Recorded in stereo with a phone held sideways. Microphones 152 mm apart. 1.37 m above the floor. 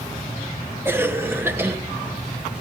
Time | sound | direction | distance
0.8 | a cough | 15° right (ahead or behind) | 0.9 m